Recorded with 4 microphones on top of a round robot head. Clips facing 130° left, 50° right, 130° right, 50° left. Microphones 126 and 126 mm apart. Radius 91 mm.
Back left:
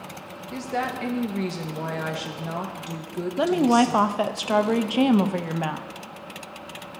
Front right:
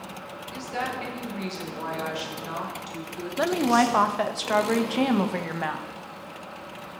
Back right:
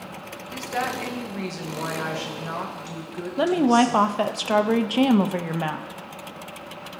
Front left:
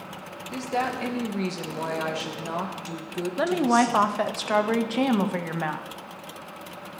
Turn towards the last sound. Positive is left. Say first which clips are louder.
# back left 2 dB, back right 3 dB
turn(degrees=180)